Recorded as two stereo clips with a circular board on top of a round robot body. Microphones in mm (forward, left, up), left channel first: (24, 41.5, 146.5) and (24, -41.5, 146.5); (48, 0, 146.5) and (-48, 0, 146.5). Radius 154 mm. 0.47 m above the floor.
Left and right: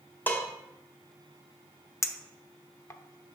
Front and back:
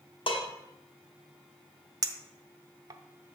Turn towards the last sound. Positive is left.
turn(degrees=135)